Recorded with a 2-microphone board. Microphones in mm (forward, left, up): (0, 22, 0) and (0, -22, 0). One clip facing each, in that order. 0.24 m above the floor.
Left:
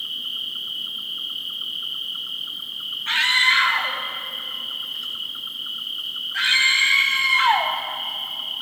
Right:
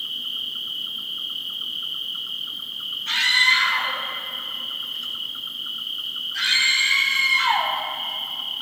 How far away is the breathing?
I don't hear breathing.